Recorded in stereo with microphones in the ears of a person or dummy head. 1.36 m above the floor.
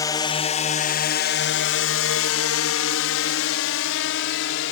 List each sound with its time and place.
0.0 s a drone: 20° left (ahead or behind); by 4.7 s 65° left (ahead or behind)